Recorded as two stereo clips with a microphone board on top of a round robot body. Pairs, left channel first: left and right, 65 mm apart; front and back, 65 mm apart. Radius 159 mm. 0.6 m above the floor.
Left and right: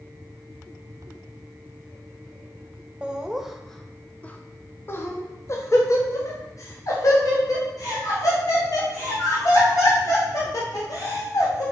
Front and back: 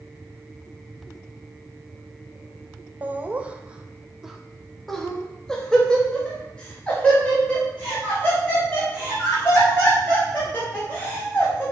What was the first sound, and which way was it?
Laughter, 150° right.